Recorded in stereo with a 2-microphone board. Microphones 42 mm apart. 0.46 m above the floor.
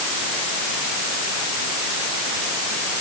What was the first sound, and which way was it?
Only background noise.